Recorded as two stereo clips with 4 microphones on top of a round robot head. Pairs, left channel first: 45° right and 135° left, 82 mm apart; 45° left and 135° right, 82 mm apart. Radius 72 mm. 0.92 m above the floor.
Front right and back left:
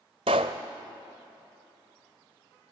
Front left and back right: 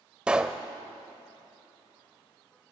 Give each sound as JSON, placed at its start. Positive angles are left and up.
{"t": 0.3, "sound": "a pop", "azimuth_deg": 145, "distance_m": 0.9}